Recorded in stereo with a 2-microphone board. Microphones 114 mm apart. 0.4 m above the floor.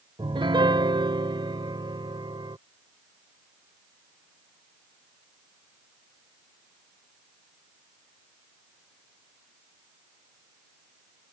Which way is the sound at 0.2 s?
45° right (ahead or behind).